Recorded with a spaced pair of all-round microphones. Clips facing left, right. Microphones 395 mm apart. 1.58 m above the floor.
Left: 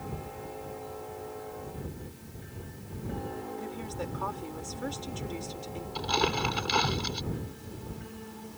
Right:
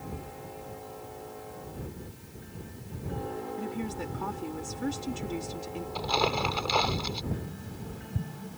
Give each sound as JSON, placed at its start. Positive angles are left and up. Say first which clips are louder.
{"t": 3.6, "sound": "a woman speaking", "louder": "right 3 dB", "side_deg": -40}
{"t": 6.0, "sound": "crumpling", "louder": "even", "side_deg": 25}
{"t": 7.3, "sound": "tapping", "louder": "right 1 dB", "side_deg": -75}